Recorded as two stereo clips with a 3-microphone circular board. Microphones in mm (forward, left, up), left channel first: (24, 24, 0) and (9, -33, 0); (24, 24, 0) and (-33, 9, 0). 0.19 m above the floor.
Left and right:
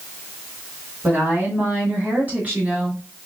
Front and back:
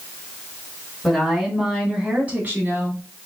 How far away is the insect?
No insect in this recording.